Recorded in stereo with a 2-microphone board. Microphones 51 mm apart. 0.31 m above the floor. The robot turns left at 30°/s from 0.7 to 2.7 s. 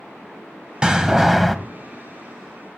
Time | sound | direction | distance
0.8 | a door slam | 15° right (ahead or behind) | 0.9 m